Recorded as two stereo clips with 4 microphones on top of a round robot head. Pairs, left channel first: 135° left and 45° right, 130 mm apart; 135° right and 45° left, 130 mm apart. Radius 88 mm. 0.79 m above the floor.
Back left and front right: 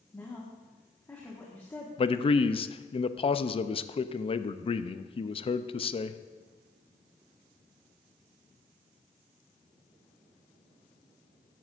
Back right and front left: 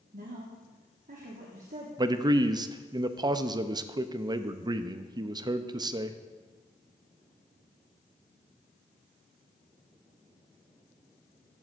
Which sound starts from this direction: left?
A man speaking, at 2.0 s.